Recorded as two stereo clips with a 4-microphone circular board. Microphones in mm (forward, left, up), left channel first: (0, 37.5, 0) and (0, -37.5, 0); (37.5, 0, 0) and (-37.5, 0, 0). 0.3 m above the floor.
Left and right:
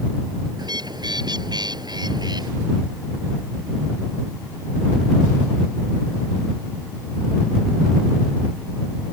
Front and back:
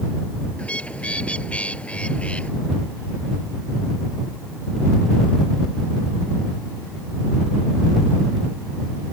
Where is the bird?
75° right.